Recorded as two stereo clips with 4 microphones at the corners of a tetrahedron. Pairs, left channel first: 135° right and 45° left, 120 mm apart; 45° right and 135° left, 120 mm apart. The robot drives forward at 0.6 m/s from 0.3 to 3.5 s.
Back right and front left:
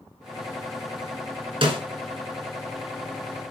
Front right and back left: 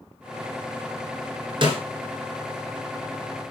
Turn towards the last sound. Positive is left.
turn(degrees=115)